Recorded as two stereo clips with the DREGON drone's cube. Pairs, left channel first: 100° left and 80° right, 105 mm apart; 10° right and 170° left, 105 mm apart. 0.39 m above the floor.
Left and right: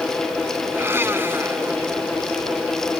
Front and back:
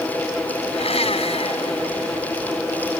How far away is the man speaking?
No man speaking in this recording.